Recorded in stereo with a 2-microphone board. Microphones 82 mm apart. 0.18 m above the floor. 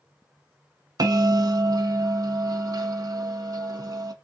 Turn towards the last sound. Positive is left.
turn(degrees=-50)  # may be behind; listen again after turning